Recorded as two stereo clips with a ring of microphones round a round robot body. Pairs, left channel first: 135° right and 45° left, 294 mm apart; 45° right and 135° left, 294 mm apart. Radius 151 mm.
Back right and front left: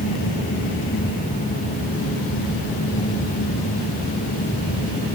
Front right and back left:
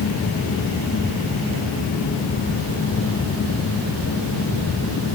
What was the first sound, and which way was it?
Only background noise.